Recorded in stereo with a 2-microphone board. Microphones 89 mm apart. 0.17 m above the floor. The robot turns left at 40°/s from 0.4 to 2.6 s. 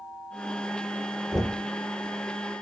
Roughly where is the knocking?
Centre.